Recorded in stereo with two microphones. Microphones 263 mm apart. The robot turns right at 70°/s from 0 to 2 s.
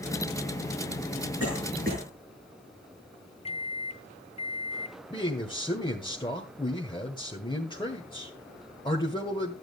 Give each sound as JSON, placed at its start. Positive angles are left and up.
{"t": 1.4, "sound": "a cough", "side_deg": -65, "distance_m": 5.5}
{"t": 3.5, "sound": "a microwave", "side_deg": 25, "distance_m": 0.5}
{"t": 5.1, "sound": "a man speaking", "side_deg": 20, "distance_m": 1.6}